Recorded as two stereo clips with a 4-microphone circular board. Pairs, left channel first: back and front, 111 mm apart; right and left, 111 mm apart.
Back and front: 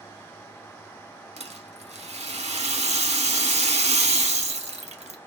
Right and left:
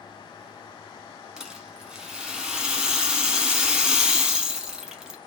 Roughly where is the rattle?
Ahead.